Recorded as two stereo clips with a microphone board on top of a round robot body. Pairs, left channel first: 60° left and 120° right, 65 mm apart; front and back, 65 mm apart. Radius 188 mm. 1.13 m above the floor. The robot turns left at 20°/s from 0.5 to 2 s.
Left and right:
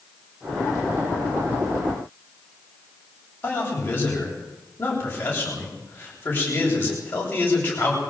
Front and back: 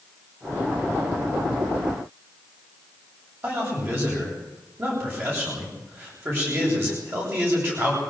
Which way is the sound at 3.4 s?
120° left.